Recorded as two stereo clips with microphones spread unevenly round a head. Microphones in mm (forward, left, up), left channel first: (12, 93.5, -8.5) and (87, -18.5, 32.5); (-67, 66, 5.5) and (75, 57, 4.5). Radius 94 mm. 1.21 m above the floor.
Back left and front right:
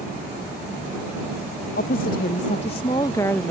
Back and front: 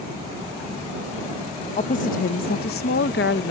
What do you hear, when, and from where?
1.8 s a woman speaking: 140° left; by 3.5 s 150° right